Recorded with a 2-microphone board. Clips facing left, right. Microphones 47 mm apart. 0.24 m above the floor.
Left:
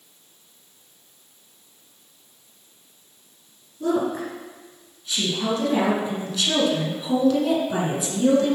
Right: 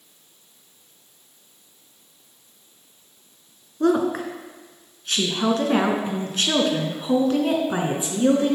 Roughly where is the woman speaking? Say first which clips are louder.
Right 3 dB; right.